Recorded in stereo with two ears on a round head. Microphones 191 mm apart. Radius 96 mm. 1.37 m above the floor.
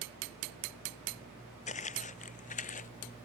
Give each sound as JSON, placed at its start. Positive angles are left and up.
{"t": 1.7, "sound": "footsteps", "side_deg": 35}